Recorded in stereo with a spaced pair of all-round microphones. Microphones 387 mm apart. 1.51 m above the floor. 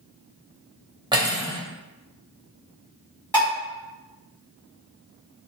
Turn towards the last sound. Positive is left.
turn(degrees=5)  # may be behind; listen again after turning